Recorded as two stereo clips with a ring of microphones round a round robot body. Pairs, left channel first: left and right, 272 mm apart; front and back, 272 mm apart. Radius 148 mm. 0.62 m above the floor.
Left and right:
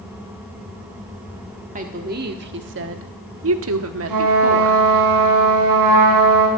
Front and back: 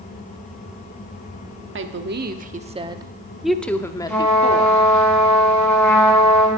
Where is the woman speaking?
150° right, 1.4 m; by 4.8 s 60° right, 1.6 m.